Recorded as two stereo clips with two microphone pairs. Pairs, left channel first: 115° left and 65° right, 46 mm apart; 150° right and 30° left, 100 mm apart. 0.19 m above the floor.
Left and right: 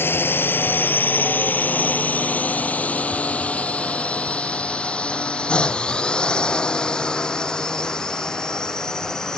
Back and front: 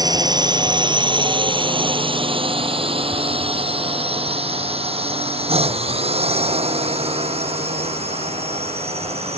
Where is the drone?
75° left; by 9.4 s 35° left.